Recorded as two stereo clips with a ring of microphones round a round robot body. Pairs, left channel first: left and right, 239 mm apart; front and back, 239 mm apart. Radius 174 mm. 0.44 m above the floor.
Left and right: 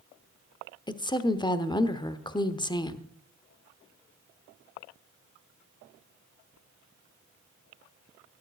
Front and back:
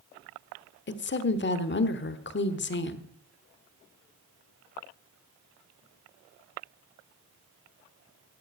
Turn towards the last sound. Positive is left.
turn(degrees=20)